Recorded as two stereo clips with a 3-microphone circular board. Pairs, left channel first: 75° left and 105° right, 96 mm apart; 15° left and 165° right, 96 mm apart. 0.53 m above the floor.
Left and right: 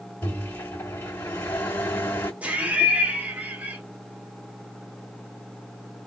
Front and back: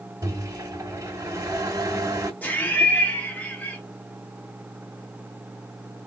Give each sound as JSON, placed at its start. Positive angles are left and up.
{"t": 0.2, "sound": "a microwave", "azimuth_deg": 150, "distance_m": 2.0}
{"t": 2.4, "sound": "laughter", "azimuth_deg": -40, "distance_m": 1.2}